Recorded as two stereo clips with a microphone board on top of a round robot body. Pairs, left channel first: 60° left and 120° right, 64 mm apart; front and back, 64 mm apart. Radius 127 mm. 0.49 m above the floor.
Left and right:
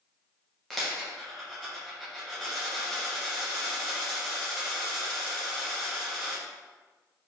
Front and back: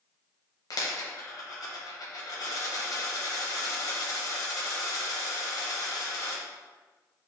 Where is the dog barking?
I don't hear a dog barking.